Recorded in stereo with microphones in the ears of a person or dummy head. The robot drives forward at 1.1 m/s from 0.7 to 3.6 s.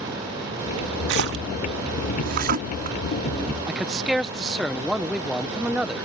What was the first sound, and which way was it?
A splash, 70° right (ahead or behind).